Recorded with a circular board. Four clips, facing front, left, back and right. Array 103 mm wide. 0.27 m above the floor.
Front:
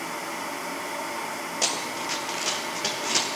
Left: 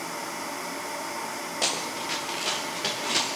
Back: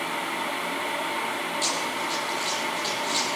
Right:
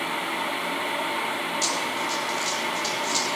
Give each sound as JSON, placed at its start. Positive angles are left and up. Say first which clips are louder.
{"t": 1.6, "sound": "running footsteps", "louder": "right 4 dB, back 2 dB", "azimuth_deg": 50, "distance_m": 6.0}